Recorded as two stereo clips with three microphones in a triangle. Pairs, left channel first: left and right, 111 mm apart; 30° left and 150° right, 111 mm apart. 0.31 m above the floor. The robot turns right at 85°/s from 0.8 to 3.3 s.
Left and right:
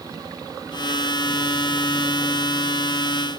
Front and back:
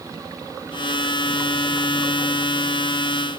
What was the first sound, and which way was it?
Only background noise.